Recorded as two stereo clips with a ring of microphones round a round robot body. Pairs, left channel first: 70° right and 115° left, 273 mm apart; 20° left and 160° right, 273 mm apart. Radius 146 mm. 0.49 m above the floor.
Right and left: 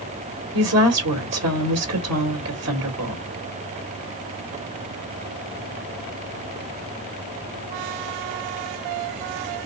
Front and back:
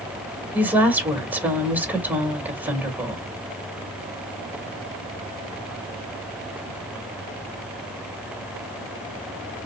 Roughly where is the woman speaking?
Behind left.